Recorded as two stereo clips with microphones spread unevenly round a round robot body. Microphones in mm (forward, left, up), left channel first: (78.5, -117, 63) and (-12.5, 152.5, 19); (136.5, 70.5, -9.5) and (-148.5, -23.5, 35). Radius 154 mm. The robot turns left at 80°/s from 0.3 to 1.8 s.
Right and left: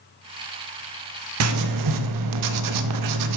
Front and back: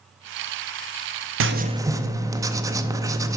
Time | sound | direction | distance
1.4 | writing | 150° left | 0.6 m